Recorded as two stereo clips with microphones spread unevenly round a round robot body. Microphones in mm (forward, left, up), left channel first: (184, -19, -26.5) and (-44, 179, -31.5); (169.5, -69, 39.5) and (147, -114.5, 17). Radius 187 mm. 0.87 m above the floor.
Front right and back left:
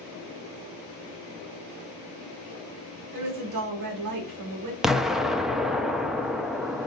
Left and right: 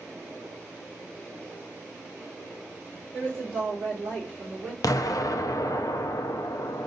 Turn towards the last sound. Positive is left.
turn(degrees=50)